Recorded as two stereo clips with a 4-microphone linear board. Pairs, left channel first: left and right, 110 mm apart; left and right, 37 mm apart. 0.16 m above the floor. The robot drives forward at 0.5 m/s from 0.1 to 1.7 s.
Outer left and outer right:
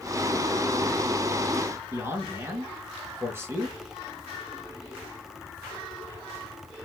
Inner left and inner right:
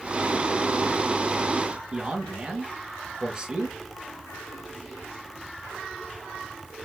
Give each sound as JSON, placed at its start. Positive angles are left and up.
{"t": 1.9, "sound": "a man speaking", "side_deg": -20, "distance_m": 1.7}